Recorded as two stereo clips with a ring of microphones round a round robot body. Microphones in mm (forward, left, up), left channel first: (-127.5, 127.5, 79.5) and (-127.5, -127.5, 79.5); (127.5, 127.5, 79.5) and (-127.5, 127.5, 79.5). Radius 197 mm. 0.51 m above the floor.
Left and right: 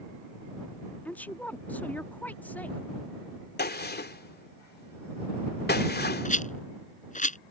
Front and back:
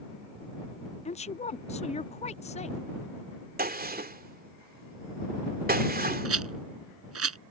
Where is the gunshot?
135° left.